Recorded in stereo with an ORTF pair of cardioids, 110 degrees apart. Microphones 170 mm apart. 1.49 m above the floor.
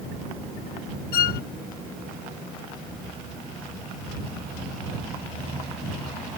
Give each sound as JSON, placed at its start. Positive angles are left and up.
{"t": 1.1, "sound": "a violin", "azimuth_deg": 70}